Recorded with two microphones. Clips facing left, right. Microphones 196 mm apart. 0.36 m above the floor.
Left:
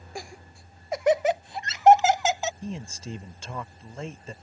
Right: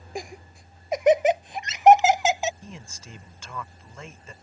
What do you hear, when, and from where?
0.1 s laughter: 20° right (ahead or behind)
2.6 s a man speaking: 30° left (ahead or behind)